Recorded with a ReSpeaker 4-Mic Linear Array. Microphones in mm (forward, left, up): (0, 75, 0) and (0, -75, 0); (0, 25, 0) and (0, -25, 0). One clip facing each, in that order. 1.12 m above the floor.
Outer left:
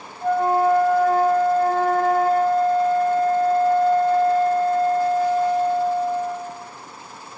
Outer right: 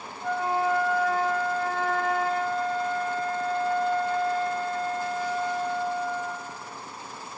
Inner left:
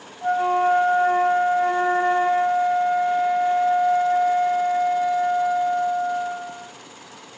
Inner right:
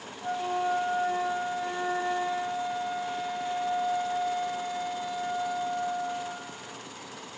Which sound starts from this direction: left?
A flute, at 0.2 s.